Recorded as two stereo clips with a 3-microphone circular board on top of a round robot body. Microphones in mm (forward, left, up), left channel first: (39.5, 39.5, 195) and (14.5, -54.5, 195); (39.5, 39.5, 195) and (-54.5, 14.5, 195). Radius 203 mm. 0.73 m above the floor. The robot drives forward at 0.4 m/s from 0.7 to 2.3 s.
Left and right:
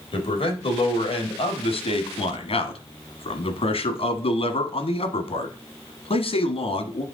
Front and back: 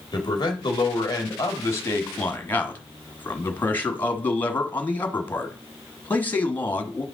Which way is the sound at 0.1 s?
60° left.